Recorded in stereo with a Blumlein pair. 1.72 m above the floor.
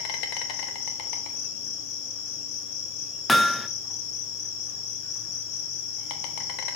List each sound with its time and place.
0.0 s an insect: 45° left, 1.4 m
3.3 s hammering: 10° left, 0.8 m